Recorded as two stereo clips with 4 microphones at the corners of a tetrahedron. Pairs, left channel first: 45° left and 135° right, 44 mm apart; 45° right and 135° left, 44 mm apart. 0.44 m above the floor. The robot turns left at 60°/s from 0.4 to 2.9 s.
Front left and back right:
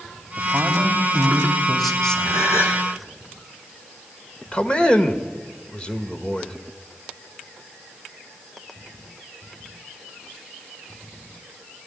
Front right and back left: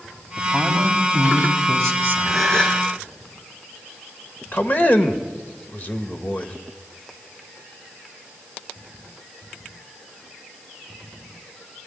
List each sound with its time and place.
0.4 s a woman speaking: 140° right, 3 m; by 2.7 s 80° left, 3 m
2.2 s a gasp: 45° left, 4 m; by 2.8 s 10° left, 4 m
4.5 s a man speaking: 15° right, 1.5 m